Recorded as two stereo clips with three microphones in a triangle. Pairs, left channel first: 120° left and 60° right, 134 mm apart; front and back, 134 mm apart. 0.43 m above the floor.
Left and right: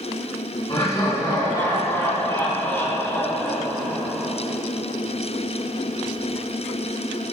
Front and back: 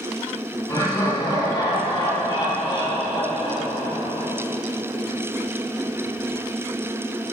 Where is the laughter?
65° left, 4 m; by 4.3 s 30° left, 3.5 m.